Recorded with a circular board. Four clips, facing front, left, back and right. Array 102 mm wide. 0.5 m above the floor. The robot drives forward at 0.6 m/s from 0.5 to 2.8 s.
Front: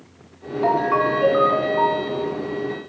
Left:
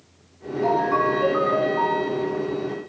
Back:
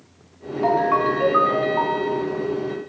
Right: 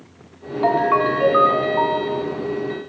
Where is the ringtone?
85° right, 0.7 m; by 2.2 s 155° right, 1.2 m.